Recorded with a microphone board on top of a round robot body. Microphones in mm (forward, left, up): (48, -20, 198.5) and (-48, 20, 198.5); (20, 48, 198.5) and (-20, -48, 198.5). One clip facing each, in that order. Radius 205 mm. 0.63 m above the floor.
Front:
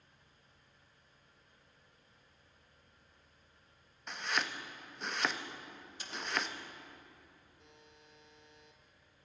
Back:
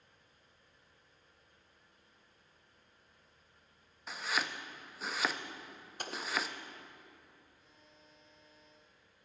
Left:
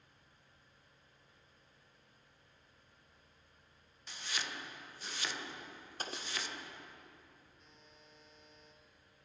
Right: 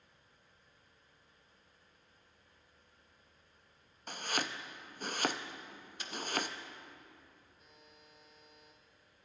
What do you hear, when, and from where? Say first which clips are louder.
4.1 s chopping: even, right 6 dB; 115° right, 1.5 m
6.0 s an explosion: back 4 dB, even; 115° left, 1.4 m
7.6 s a buzzer: front 2 dB, right 1 dB; 30° right, 3.5 m